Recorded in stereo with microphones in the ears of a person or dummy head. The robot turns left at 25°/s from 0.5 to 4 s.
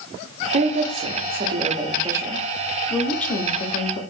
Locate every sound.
0.5 s a woman speaking: 125° right, 0.7 m; by 4.0 s 145° left, 0.7 m